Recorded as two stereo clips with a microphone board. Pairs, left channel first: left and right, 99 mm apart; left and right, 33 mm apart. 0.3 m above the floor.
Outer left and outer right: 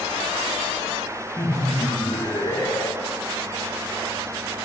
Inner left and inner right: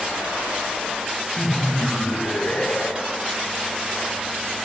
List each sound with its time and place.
1.4 s laughter: 50° left (ahead or behind), 1.9 m